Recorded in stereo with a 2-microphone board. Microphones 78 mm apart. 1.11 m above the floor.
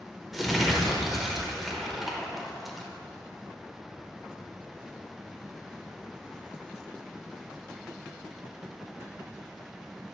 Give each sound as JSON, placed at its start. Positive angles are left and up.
{"t": 0.3, "sound": "crumpling", "side_deg": 0, "distance_m": 0.9}